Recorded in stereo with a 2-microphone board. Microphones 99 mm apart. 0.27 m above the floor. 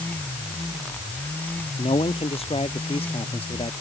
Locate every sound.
1.8 s a man speaking: 80° left; by 3.7 s 75° left (ahead or behind)